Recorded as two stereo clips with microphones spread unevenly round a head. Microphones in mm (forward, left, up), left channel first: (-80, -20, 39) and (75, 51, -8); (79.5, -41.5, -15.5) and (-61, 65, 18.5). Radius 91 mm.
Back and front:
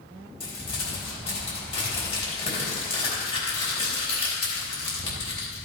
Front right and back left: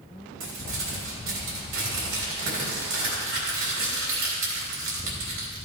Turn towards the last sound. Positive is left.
turn(degrees=150)